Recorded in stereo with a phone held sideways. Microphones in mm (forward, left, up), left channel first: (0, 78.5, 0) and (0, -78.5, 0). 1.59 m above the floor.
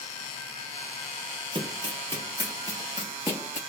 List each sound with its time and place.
1.5 s running footsteps: 35° right (ahead or behind), 2.0 m; by 3.6 s 15° right (ahead or behind), 1.7 m